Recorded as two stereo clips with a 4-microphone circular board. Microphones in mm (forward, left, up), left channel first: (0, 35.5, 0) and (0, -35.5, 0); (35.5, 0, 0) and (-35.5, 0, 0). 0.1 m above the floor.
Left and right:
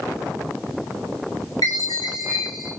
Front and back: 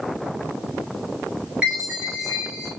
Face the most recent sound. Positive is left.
turn(degrees=110)